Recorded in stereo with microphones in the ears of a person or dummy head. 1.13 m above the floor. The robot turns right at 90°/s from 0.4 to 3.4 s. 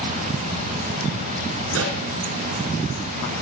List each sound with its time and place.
1.7 s a pop: 75° right (ahead or behind), 3 m; by 2.0 s 65° right (ahead or behind), 3 m